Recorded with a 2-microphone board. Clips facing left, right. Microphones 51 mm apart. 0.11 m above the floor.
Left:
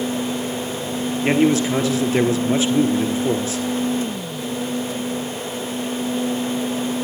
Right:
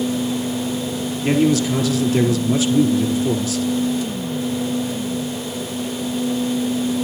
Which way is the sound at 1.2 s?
30° left (ahead or behind).